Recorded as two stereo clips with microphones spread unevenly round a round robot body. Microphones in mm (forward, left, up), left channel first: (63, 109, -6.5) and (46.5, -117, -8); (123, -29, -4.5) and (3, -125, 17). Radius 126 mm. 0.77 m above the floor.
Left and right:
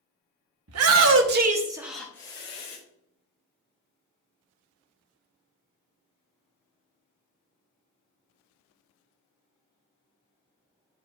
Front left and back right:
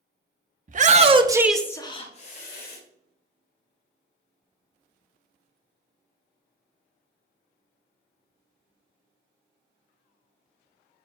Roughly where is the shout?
Right.